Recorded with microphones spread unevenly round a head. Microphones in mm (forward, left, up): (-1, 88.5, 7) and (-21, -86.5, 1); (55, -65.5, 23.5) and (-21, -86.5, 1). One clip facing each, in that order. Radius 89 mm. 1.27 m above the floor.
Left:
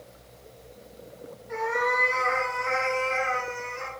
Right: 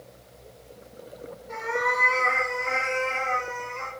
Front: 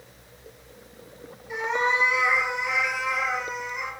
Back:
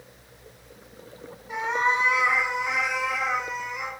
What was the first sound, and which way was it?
A cat meowing, 120° right.